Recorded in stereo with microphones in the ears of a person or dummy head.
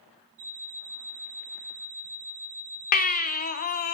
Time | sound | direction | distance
0.4 | an alarm clock | 65° right (ahead or behind) | 1.3 m
2.9 | a baby crying | 45° left (ahead or behind) | 0.6 m